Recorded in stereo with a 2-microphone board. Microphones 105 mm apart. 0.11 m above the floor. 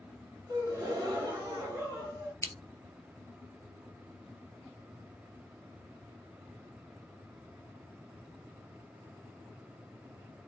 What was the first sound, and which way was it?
A gasp, 35° right (ahead or behind).